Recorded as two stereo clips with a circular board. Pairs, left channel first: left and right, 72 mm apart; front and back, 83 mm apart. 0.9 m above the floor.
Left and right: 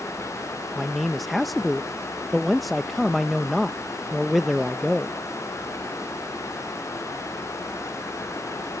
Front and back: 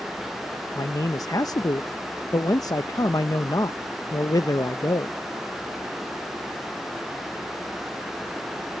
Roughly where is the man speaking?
Ahead.